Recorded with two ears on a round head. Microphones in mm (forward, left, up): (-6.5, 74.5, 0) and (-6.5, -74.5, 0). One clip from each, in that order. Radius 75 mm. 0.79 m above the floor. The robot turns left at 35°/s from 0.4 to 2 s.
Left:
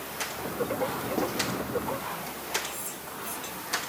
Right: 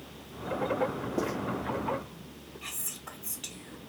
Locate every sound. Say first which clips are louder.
1.2 s writing: left 1 dB; 60° left (ahead or behind), 1.6 m; by 1.3 s 55° left (ahead or behind), 1.6 m
2.6 s whispering: left 4 dB; 15° right (ahead or behind), 0.6 m